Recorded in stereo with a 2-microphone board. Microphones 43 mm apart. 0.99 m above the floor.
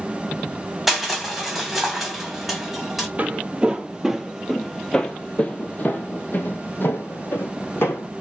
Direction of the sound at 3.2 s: 35° right (ahead or behind).